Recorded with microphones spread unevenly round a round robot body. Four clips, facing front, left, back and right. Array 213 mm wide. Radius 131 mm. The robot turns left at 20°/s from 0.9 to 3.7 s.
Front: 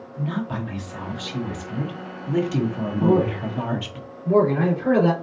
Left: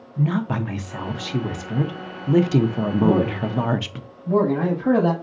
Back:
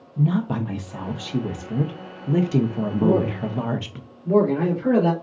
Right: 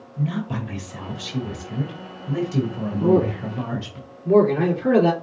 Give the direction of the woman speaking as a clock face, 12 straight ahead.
7 o'clock.